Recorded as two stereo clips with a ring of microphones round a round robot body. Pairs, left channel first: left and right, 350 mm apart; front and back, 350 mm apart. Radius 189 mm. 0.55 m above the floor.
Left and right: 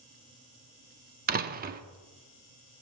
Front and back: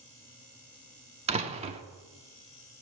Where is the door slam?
125° right, 0.6 m.